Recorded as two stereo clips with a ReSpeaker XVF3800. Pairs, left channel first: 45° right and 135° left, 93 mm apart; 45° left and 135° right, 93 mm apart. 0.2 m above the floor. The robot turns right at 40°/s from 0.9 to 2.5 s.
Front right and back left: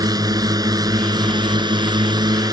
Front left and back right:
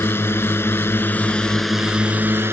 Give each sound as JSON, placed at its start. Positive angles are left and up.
{"t": 0.0, "sound": "a drone", "azimuth_deg": 105}